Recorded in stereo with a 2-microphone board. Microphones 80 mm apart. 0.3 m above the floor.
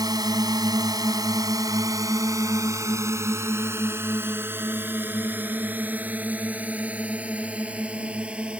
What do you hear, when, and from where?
0.0 s a drone: 60° right (ahead or behind); by 8.6 s 15° right (ahead or behind)